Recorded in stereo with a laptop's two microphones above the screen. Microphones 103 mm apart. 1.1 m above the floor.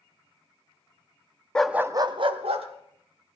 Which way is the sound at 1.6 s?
10° left (ahead or behind).